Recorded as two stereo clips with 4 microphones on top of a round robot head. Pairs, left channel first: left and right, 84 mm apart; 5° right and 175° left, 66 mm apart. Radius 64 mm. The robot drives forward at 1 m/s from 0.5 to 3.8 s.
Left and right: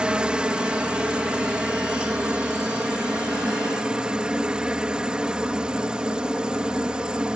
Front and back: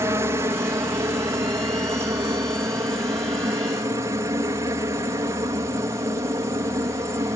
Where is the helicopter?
165° right.